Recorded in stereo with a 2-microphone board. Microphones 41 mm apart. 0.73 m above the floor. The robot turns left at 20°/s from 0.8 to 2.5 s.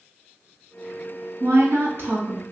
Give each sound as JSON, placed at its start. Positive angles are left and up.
{"t": 1.4, "sound": "a woman speaking", "side_deg": -60, "distance_m": 1.1}